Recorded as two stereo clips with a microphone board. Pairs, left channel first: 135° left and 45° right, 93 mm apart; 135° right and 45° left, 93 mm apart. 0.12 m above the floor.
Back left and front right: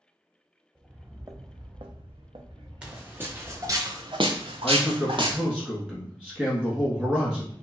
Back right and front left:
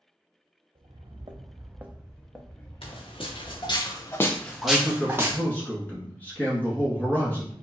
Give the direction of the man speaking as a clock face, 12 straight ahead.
3 o'clock.